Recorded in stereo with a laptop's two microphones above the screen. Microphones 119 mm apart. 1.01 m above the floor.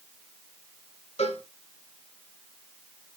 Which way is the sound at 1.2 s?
60° left (ahead or behind).